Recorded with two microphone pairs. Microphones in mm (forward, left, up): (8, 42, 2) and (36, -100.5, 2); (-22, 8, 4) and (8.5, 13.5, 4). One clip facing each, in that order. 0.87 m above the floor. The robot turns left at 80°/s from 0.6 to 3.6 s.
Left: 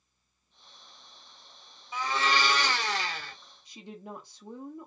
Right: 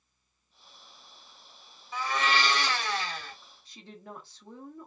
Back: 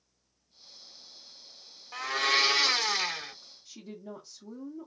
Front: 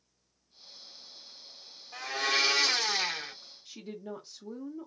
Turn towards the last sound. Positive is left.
turn(degrees=35)